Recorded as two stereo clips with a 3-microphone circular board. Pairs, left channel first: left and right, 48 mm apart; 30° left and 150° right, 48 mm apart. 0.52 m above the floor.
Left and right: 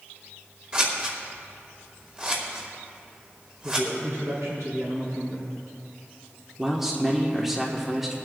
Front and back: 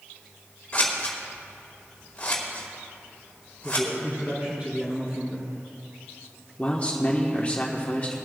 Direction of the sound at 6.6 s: 10° right.